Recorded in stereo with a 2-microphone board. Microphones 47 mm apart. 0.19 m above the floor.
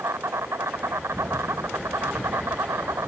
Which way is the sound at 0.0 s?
80° right.